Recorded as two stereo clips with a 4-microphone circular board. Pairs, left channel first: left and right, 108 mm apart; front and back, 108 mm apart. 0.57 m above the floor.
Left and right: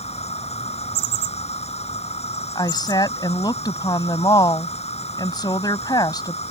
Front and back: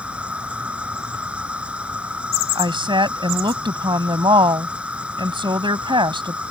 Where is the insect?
100° left.